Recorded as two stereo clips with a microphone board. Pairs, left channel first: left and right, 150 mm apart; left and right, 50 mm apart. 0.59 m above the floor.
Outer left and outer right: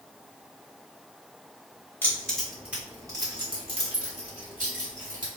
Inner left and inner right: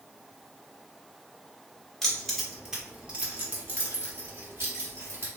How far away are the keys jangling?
About 1.1 m.